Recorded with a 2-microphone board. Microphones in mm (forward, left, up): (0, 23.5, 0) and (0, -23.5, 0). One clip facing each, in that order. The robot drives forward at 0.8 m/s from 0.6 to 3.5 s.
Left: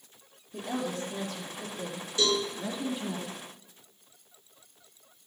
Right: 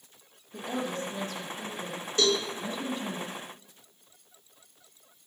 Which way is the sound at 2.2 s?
50° right (ahead or behind).